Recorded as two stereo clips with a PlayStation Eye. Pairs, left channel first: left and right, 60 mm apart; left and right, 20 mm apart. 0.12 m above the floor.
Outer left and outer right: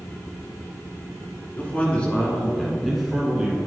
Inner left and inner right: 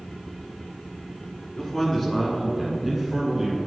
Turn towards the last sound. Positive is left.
turn(degrees=-10)  # may be behind; listen again after turning